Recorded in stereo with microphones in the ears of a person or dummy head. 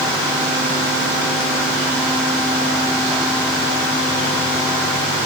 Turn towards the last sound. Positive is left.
No sound to turn to.